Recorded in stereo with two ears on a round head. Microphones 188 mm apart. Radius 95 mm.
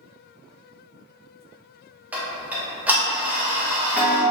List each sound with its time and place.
2.1 s ticking: 10° right (ahead or behind), 0.6 m